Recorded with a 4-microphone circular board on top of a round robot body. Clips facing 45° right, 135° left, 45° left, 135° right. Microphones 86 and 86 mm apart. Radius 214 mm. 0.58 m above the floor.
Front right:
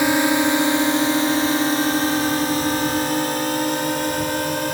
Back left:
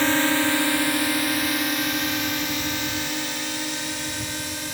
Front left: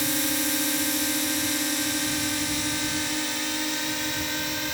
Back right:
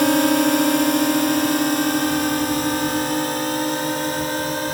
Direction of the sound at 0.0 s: 120° right.